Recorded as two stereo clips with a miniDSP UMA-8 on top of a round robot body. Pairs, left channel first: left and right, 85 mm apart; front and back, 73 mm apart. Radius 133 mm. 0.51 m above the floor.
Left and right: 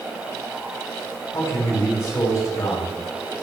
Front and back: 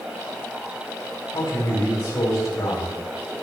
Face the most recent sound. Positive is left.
turn(degrees=35)